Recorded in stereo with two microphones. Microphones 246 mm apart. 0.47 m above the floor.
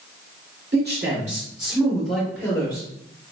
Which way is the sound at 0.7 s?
45° right (ahead or behind).